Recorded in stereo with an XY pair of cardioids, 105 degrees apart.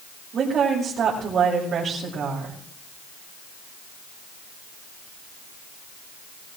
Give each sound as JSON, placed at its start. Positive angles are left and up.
{"t": 0.3, "sound": "a woman speaking", "azimuth_deg": -55, "distance_m": 6.0}